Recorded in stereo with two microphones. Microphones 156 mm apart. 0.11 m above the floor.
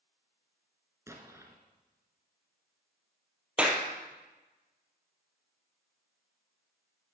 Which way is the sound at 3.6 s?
5° right (ahead or behind).